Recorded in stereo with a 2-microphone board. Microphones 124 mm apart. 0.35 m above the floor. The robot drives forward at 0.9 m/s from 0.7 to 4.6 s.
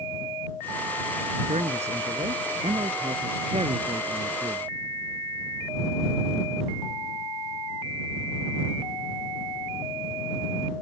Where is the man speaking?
65° right (ahead or behind); by 4.7 s 45° right (ahead or behind).